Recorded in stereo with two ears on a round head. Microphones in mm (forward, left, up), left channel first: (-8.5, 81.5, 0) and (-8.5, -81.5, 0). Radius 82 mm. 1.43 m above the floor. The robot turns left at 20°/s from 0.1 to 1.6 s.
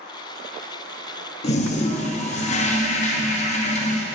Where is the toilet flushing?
35° left (ahead or behind), 0.6 m; by 4.0 s 40° left (ahead or behind), 0.6 m.